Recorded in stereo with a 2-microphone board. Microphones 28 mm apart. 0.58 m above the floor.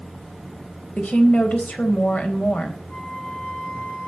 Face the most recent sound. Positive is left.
turn(degrees=80)